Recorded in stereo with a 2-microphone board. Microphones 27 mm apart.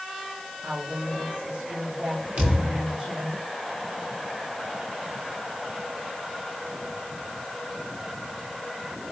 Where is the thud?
75° right (ahead or behind), 9.5 m.